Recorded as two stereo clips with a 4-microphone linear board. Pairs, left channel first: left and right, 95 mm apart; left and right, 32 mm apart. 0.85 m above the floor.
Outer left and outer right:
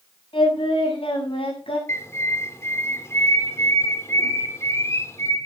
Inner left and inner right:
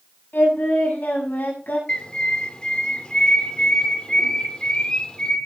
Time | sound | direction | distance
0.3 | singing | 65° left (ahead or behind) | 8 m
1.9 | a bird | 30° left (ahead or behind) | 2.5 m